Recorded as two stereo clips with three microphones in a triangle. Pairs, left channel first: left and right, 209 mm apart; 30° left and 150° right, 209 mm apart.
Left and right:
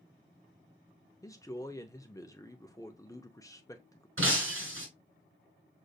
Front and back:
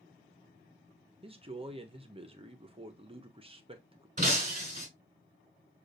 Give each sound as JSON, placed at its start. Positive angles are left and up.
{"t": 1.2, "sound": "a man speaking", "azimuth_deg": 160, "distance_m": 0.8}
{"t": 4.2, "sound": "breaking glass", "azimuth_deg": -95, "distance_m": 2.0}